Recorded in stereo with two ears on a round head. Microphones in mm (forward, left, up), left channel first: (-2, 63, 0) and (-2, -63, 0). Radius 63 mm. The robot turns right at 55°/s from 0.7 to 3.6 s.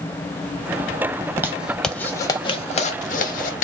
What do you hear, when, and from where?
1.2 s a zipper: 25° right (ahead or behind), 0.6 m; by 3.6 s 60° left (ahead or behind), 0.6 m